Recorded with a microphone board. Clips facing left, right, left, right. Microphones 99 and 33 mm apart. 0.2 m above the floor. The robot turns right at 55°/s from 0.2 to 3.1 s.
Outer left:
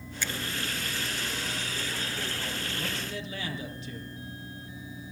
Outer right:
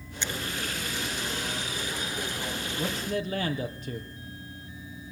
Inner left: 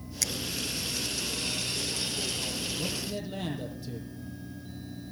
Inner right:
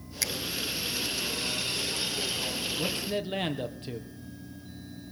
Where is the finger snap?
20° right (ahead or behind), 1.0 m.